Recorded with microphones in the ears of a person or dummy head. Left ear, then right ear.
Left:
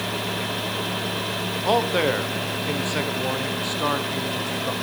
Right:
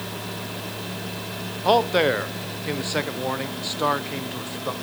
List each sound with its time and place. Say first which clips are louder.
1.6 s a man speaking: right 3 dB; 15° right (ahead or behind), 0.7 m